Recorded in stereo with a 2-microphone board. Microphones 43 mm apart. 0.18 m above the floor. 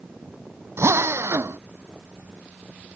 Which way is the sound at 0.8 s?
80° right.